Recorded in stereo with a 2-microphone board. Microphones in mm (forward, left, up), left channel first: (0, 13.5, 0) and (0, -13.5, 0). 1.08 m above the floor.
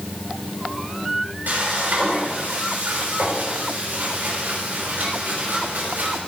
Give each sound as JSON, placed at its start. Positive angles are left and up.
{"t": 1.5, "sound": "frying", "side_deg": -80, "distance_m": 6.5}